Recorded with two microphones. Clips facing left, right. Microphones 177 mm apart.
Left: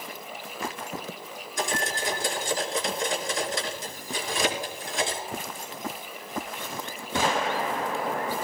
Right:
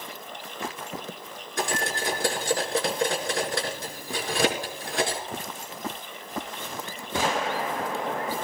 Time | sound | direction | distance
1.6 | cutlery clinking | 65° right (ahead or behind) | 4 m